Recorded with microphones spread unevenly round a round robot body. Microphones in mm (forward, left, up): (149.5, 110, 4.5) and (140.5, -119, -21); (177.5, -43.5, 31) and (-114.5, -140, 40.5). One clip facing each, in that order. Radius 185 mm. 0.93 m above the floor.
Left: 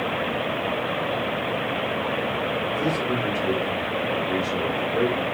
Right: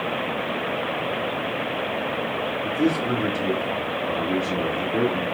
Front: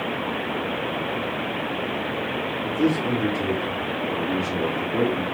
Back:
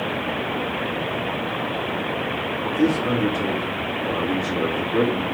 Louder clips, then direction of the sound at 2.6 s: Right 6 dB, back 2 dB; 95° right.